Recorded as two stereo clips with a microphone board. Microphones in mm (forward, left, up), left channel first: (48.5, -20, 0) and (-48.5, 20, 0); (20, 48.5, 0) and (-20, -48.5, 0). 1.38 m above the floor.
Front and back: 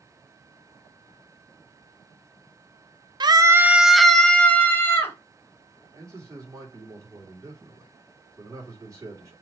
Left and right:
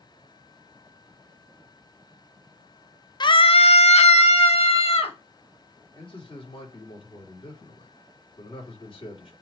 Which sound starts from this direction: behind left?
A scream, at 3.2 s.